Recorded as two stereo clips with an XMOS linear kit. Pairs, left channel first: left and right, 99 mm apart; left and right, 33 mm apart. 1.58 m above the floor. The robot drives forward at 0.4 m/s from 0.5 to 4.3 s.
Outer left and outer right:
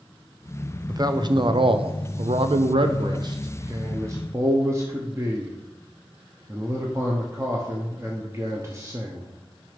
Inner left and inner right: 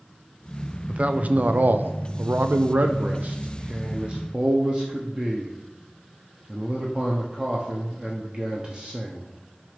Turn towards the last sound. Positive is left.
turn(degrees=-30)  # may be behind; listen again after turning